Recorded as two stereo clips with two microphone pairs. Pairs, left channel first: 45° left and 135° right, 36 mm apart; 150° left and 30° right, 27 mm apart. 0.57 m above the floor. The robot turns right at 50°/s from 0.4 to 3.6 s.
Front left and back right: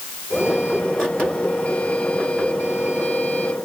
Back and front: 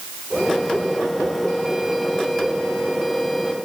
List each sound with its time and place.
Only background noise.